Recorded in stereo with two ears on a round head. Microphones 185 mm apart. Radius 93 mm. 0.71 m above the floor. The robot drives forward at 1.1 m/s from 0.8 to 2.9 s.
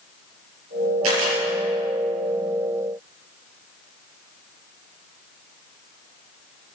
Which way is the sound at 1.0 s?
75° right (ahead or behind).